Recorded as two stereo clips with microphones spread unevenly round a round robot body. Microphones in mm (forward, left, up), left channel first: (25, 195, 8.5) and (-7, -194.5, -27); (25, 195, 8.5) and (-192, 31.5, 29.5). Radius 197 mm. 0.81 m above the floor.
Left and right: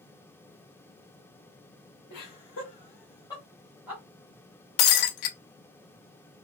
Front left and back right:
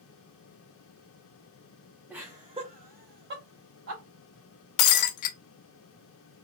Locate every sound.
2.1 s laughter: 130° left, 1.1 m; by 4.0 s straight behind, 1.3 m
4.8 s breaking glass: 50° left, 0.7 m